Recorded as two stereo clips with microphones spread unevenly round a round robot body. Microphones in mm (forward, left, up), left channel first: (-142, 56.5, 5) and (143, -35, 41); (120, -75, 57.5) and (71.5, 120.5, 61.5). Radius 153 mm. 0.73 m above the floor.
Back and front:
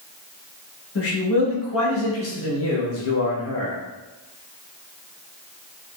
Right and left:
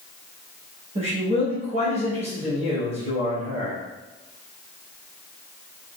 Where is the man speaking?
155° left, 1.2 m.